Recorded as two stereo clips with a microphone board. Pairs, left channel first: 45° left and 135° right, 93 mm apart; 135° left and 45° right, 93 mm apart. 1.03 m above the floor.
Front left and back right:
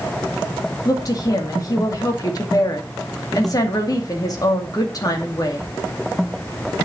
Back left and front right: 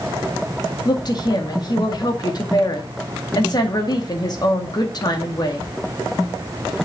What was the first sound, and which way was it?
A woman speaking, 90° left.